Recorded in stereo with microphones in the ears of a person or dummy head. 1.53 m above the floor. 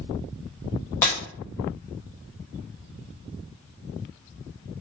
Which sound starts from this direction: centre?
Breaking glass, at 1.0 s.